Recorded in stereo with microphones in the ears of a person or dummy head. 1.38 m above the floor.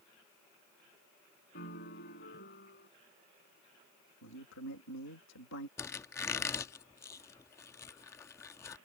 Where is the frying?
No frying in this recording.